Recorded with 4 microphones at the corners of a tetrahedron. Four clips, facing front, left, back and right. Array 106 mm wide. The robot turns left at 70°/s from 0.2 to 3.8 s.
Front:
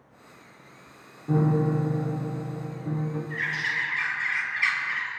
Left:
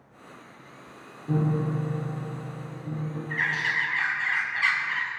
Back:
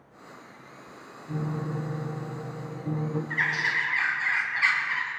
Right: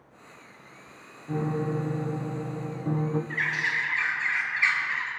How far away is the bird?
About 3.5 m.